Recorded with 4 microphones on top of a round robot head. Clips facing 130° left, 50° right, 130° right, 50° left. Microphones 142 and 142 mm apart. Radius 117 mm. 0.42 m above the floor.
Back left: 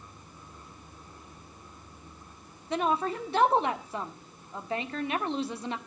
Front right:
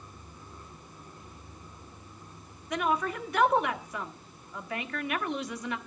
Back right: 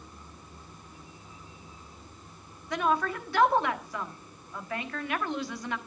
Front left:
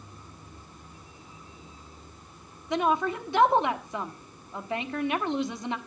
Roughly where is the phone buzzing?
No phone buzzing in this recording.